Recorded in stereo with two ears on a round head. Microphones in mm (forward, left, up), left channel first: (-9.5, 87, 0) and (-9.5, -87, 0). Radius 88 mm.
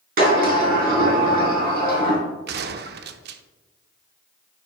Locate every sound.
0.2 s a sliding door: 50° right (ahead or behind), 3.5 m
2.5 s a gunshot: 55° right (ahead or behind), 0.6 m